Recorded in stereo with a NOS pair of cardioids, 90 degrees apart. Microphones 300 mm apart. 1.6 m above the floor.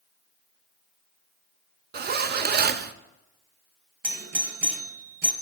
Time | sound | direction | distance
1.9 | a zipper | 30° right | 0.7 m
4.0 | a doorbell | 35° right | 1.9 m